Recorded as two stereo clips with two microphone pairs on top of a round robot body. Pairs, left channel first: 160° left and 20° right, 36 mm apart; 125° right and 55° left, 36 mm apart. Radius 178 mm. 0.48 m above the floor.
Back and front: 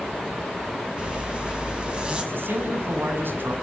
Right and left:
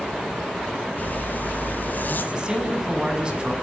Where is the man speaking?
5° right, 6.5 m.